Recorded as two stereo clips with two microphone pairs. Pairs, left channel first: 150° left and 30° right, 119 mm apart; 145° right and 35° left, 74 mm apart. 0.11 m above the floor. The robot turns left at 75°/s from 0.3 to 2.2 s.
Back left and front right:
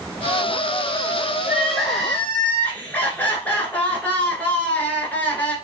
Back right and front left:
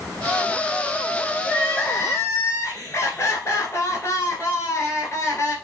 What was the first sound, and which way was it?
Crying, 85° right.